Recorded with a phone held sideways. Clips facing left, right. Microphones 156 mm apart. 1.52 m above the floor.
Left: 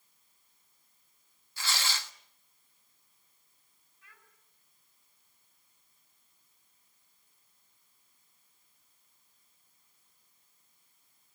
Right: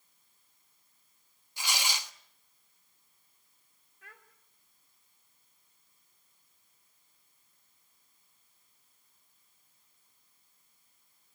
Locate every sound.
1.6 s tearing paper: 15° right (ahead or behind), 1.3 m
4.0 s a child speaking: 75° right (ahead or behind), 3 m